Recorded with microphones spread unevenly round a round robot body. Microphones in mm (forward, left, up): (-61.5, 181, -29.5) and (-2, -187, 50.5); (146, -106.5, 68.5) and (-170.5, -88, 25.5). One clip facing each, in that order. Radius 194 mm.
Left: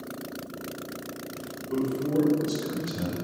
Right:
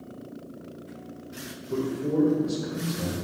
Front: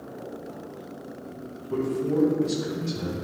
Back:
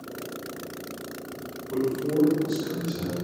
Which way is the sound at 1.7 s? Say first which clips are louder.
Left 1 dB, even; 45° left.